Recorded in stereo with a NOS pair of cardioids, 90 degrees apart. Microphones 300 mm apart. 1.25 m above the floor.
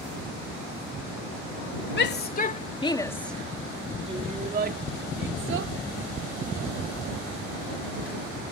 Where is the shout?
40° left; by 5.7 s 50° right.